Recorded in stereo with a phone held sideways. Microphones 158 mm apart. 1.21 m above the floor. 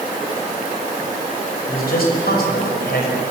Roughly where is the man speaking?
Left.